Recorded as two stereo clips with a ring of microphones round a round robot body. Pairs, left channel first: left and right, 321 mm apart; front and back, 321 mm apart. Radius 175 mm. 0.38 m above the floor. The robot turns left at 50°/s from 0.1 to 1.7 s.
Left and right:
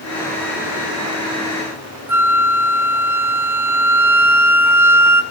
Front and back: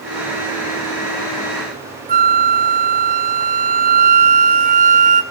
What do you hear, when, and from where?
2.1 s a flute: 165° right, 1.6 m